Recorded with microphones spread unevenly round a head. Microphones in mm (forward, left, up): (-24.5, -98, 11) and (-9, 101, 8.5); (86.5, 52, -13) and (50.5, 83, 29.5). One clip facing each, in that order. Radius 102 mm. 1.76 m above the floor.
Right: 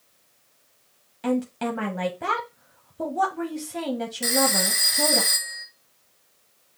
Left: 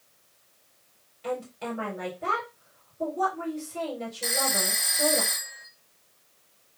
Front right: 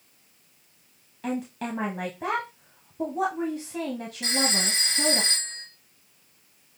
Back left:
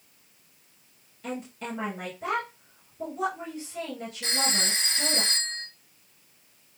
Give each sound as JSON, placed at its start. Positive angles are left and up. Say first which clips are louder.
{"t": 1.2, "sound": "a woman speaking", "louder": "right 8 dB, front right 5 dB", "azimuth_deg": -80, "distance_m": 1.1}
{"t": 4.2, "sound": "a phone ringing", "louder": "right 8 dB, front right 2 dB", "azimuth_deg": -160, "distance_m": 1.3}